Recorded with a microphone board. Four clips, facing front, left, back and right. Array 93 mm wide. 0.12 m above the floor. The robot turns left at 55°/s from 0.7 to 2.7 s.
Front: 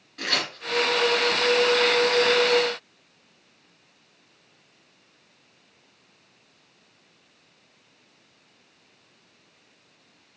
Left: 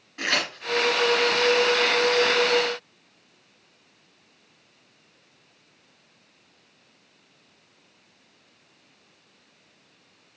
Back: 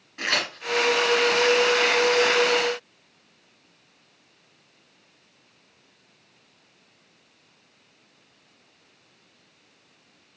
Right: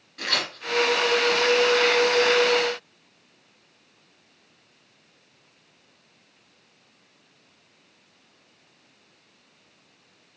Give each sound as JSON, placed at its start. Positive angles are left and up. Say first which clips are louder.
{"t": 0.2, "sound": "tearing paper", "louder": "left 2 dB, back 2 dB", "azimuth_deg": 130, "distance_m": 0.9}